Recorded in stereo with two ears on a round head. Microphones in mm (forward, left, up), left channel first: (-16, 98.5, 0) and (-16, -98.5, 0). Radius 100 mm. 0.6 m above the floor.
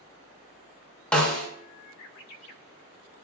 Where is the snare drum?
5° left (ahead or behind), 0.6 m.